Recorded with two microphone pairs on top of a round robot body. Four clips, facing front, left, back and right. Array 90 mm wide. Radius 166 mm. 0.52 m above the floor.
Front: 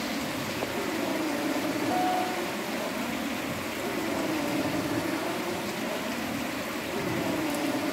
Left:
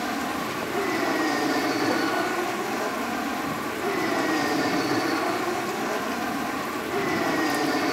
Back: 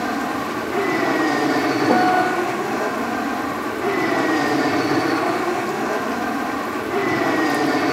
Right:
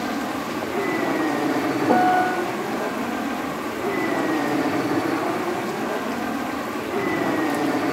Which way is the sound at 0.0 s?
170° left.